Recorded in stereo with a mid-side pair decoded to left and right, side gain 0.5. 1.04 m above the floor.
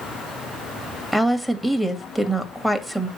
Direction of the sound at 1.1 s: 5° right.